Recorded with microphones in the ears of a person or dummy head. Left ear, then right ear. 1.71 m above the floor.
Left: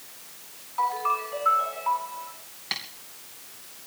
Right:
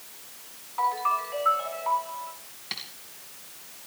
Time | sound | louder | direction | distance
0.8 | a ringtone | even | 10° right (ahead or behind) | 8 m
2.7 | tapping | left 4 dB | 20° left (ahead or behind) | 2.5 m